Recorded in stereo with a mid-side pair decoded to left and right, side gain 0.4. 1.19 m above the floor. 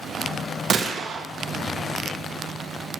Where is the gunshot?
50° right, 0.8 m.